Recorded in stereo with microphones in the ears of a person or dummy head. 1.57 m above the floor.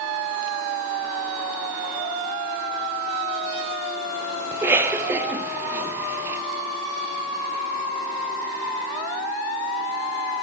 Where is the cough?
10° right (ahead or behind), 0.8 m.